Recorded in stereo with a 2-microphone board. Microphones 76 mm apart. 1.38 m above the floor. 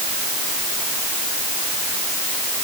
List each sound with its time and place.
Only background noise.